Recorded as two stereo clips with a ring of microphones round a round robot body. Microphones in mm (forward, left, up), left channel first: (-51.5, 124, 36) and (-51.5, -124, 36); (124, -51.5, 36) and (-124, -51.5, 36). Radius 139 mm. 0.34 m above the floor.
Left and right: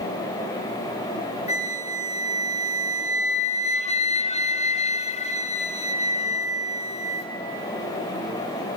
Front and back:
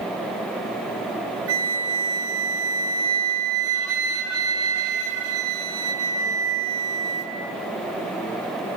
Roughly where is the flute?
Behind left.